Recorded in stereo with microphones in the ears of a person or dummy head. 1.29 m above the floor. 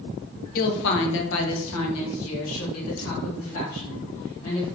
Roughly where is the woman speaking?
Left.